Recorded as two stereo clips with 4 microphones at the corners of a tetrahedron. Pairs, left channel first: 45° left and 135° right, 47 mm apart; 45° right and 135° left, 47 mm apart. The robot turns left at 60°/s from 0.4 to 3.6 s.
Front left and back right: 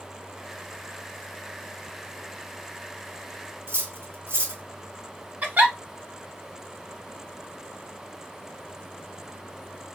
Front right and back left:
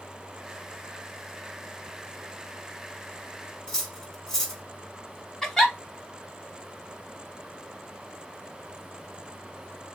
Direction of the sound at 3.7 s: 125° right.